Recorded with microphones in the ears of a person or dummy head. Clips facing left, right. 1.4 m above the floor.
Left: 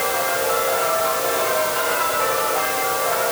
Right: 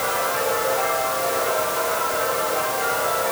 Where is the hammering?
I don't hear hammering.